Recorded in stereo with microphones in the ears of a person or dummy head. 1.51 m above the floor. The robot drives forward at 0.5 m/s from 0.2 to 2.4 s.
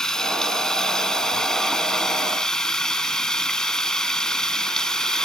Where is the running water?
5° left (ahead or behind).